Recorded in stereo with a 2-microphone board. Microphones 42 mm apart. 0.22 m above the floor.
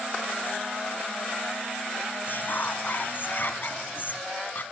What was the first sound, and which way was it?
Whispering, 50° left (ahead or behind).